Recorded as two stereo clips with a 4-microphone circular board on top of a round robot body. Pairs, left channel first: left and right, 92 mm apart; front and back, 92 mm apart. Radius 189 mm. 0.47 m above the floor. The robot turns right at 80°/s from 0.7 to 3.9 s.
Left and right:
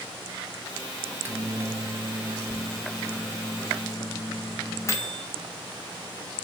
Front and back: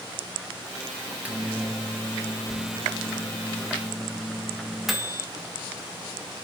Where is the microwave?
130° right, 1.1 m; by 5.2 s 95° left, 1.1 m.